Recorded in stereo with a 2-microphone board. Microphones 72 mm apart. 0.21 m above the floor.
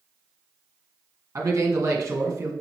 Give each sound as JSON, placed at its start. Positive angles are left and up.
{"t": 1.4, "sound": "a man speaking", "side_deg": -45, "distance_m": 1.8}